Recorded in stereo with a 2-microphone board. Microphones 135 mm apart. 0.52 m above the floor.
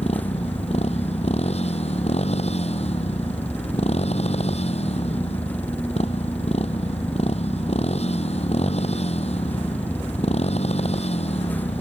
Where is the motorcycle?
50° left (ahead or behind).